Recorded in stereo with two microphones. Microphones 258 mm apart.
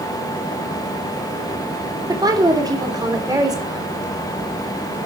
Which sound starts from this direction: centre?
A woman speaking, at 2.1 s.